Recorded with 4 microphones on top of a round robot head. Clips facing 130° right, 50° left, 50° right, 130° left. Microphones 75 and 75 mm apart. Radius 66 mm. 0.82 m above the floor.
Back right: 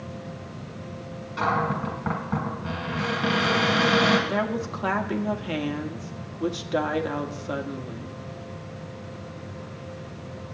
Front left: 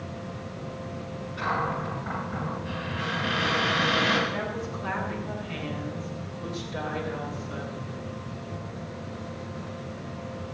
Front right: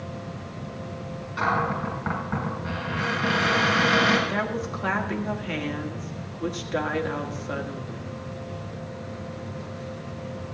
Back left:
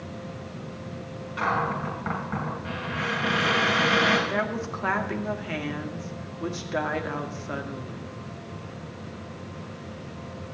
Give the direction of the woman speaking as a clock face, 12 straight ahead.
5 o'clock.